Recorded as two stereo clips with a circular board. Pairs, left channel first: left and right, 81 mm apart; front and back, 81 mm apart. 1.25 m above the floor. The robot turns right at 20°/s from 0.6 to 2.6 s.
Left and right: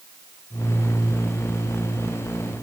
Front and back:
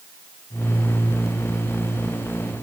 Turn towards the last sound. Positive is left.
No sound to turn to.